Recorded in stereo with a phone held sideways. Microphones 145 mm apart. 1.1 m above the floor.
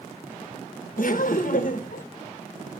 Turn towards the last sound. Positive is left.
turn(degrees=70)  # may be behind; listen again after turning